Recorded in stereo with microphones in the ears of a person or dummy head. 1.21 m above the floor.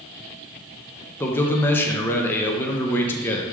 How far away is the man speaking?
About 0.7 m.